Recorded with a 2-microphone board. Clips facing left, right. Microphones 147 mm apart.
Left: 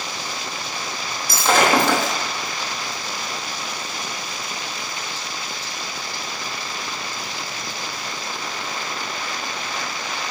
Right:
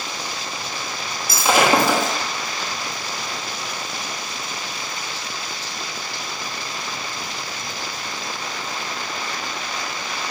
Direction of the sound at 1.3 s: 5° right (ahead or behind).